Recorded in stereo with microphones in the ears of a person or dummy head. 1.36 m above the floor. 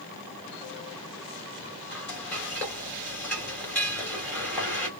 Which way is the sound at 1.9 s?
5° left (ahead or behind).